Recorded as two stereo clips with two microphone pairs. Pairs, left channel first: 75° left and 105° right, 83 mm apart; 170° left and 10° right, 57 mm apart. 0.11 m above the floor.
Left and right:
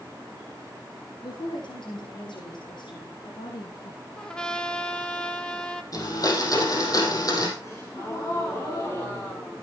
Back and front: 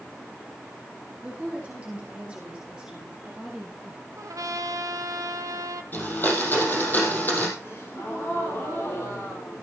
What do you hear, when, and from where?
1.2 s a woman speaking: 60° left, 5.5 m; by 4.0 s 75° left, 3 m
4.2 s a trumpet: 5° right, 1.0 m
5.9 s a blender: 115° left, 4 m
7.6 s a gasp: 130° left, 7.5 m